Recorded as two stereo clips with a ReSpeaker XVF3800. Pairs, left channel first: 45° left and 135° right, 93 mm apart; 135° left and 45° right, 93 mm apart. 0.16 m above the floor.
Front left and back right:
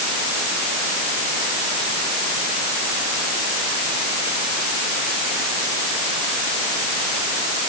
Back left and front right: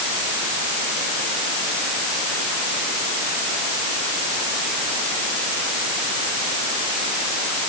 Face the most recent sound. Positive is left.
No sound to turn to.